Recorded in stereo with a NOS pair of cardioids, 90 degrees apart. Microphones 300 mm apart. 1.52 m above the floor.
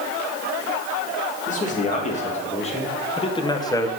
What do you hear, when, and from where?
1.5 s a man speaking: 25° left, 2.5 m; by 3.9 s 10° left, 0.9 m